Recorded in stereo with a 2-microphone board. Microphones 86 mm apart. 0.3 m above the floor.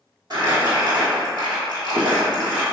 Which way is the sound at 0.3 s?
50° right (ahead or behind).